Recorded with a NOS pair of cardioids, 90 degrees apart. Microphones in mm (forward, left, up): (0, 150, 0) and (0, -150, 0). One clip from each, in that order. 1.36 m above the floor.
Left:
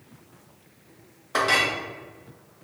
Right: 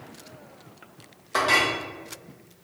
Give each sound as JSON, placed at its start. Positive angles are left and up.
{"t": 1.3, "sound": "a clink", "azimuth_deg": 5, "distance_m": 0.8}